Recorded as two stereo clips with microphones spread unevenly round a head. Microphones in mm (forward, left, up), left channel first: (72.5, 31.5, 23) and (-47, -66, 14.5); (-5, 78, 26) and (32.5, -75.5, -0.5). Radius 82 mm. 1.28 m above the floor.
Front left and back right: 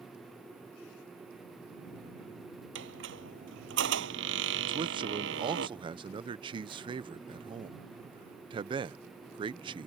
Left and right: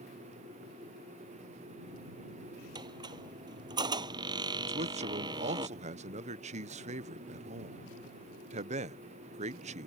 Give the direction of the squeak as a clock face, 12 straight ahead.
5 o'clock.